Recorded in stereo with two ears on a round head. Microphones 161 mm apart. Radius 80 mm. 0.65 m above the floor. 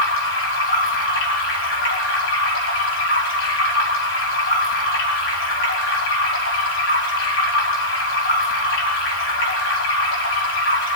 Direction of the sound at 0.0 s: 75° left (ahead or behind).